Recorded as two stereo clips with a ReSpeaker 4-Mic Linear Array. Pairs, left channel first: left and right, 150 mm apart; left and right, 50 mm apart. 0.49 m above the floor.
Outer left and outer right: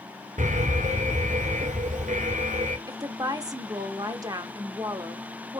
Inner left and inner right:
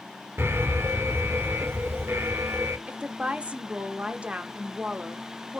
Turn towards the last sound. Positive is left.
turn(degrees=-25)  # may be behind; listen again after turning